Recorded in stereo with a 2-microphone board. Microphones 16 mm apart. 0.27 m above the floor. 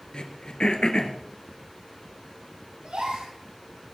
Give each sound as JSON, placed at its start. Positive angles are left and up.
{"t": 0.1, "sound": "throat clearing", "side_deg": 70, "distance_m": 1.7}
{"t": 2.8, "sound": "a gasp", "side_deg": -80, "distance_m": 9.0}